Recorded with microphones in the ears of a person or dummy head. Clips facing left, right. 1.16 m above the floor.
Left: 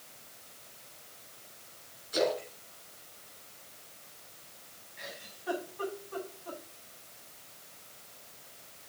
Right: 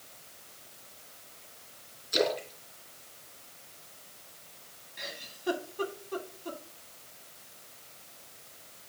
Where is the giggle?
55° right (ahead or behind), 2.5 m.